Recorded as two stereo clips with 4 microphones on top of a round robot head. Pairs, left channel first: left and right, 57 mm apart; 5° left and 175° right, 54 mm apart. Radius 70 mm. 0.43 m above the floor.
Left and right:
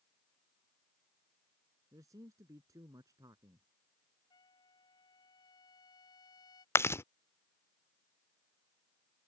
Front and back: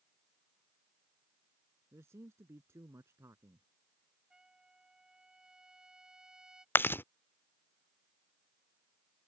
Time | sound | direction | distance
1.9 | a man speaking | 130° right | ?
4.3 | a trumpet | 110° left | ?
6.8 | chewing | 50° left | ?